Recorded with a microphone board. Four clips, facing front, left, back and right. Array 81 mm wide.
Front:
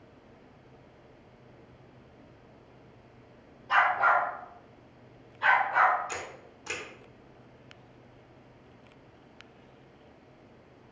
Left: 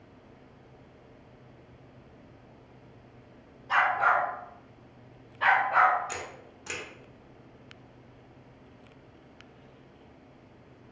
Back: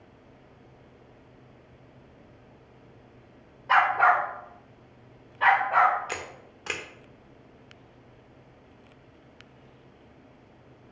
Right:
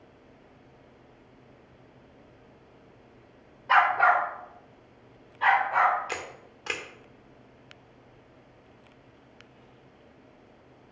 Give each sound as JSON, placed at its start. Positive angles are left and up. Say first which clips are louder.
{"t": 3.7, "sound": "a dog barking", "louder": "right 4 dB, back 3 dB", "azimuth_deg": -145, "distance_m": 1.1}
{"t": 6.1, "sound": "a camera shutter", "louder": "right 2 dB, back 2 dB", "azimuth_deg": -145, "distance_m": 1.0}